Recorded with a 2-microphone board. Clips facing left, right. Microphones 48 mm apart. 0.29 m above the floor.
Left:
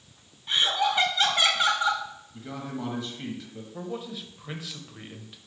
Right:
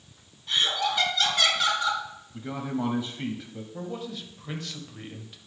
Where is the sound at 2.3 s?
20° right (ahead or behind), 1.2 m.